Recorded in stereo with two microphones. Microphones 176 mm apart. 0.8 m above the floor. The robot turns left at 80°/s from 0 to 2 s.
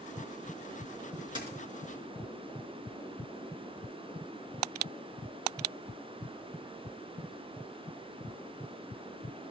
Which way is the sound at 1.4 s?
30° right (ahead or behind).